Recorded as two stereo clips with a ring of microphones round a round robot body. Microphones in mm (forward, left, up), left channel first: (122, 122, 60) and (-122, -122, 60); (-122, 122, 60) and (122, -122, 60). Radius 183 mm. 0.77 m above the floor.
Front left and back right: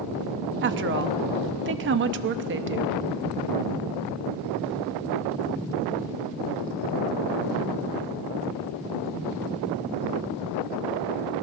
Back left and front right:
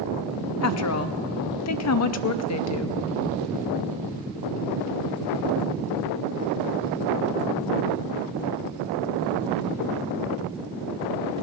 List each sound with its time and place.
0.6 s a woman speaking: 170° left, 0.6 m